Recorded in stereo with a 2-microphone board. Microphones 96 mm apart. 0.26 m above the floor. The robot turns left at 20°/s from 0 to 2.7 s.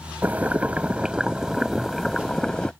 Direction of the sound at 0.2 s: 145° right.